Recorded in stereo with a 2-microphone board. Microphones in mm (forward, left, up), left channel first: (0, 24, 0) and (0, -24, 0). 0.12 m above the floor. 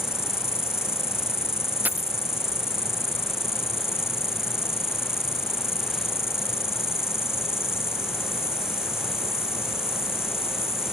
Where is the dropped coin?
35° right (ahead or behind).